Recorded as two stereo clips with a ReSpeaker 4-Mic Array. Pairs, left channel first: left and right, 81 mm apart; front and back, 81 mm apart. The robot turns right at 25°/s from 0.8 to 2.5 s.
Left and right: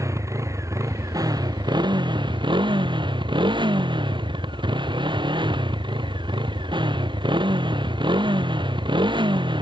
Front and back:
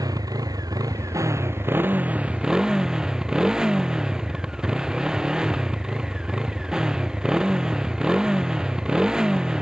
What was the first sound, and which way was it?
A motorcycle, 140° right.